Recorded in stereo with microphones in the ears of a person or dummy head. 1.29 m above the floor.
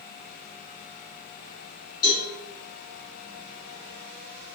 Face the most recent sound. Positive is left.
turn(degrees=50)  # may be behind; listen again after turning